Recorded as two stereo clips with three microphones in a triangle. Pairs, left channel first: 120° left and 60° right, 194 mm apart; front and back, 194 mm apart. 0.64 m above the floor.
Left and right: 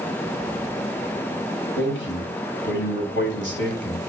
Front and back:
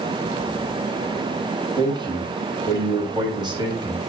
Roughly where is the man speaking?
Behind left.